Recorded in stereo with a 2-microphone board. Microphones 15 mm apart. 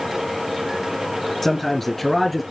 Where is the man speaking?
Centre (ahead or behind), 2.5 m; by 2.4 s 5° right (ahead or behind), 3.5 m.